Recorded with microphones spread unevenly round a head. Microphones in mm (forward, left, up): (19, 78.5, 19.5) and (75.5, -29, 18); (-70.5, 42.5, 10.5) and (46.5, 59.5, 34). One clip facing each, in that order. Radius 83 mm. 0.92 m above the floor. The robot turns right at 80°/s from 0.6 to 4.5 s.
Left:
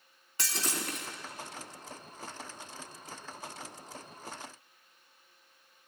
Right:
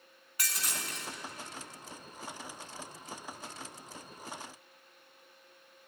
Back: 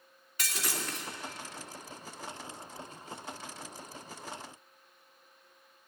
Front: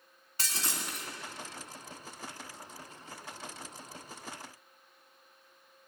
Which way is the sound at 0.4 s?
55° left.